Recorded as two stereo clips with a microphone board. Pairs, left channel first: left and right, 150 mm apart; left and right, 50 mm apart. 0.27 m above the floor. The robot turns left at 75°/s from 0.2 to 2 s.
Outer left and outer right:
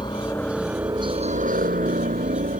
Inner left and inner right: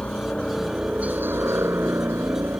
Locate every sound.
0.0 s a helicopter: 30° left (ahead or behind); by 2.6 s 55° right (ahead or behind)